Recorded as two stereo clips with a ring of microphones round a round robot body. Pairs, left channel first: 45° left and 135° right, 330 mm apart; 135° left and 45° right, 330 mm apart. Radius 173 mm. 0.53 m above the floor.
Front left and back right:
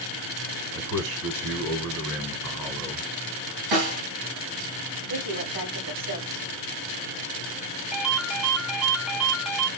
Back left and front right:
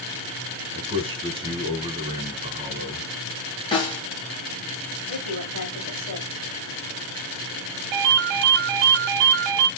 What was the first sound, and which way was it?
A man speaking, 115° right.